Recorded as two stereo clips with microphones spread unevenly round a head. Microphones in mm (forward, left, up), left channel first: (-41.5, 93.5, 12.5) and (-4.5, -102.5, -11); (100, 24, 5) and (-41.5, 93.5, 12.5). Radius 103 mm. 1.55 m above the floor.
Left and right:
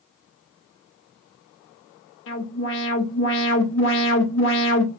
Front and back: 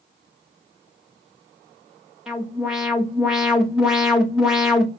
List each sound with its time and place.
2.3 s an alarm: 65° left, 0.9 m